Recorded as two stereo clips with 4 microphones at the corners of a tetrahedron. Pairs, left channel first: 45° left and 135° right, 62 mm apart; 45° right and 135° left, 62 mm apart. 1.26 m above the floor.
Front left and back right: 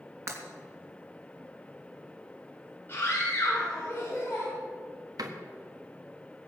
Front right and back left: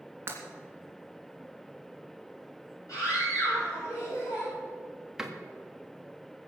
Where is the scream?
15° right, 4.5 m.